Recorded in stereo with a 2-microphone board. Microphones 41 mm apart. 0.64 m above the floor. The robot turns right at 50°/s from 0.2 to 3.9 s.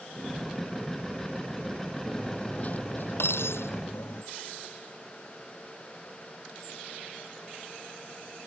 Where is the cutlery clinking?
10° left; by 4.2 s 105° left.